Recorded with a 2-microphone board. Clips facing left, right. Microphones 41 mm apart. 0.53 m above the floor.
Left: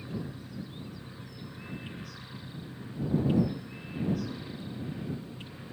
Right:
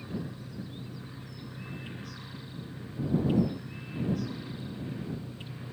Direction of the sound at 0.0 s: 50° right (ahead or behind).